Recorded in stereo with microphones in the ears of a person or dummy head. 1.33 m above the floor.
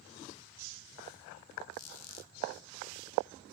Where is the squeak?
85° left, 1.6 m.